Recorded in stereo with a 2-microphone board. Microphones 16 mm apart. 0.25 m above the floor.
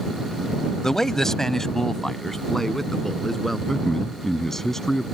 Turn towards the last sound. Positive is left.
turn(degrees=20)  # may be behind; listen again after turning